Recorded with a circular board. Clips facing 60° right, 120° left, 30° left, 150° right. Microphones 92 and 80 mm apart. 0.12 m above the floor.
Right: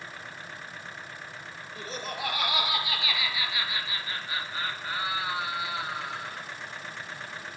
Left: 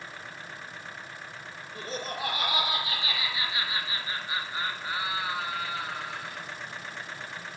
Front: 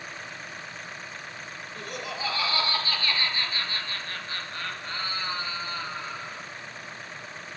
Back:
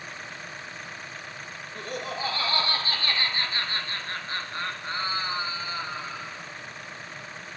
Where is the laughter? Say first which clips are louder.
Left 1 dB, back 3 dB; 160° left, 3 m; by 6.4 s 65° right, 1.5 m.